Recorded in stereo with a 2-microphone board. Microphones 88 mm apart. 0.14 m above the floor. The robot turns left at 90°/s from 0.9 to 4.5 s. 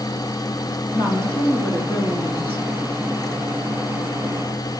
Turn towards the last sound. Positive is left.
turn(degrees=150)